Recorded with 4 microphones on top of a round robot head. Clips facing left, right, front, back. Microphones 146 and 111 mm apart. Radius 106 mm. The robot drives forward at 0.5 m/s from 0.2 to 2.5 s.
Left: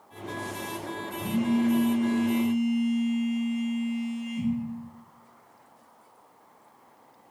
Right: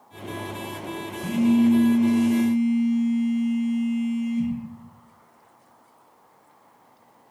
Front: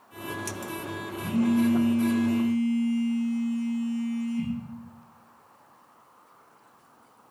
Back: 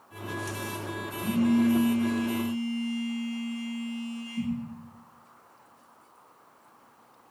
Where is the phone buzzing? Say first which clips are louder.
Right 6 dB, even; 135° left, 1.6 m; by 4.5 s 150° left, 2 m.